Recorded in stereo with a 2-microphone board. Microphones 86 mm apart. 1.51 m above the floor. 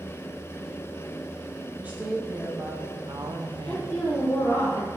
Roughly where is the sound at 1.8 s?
Centre.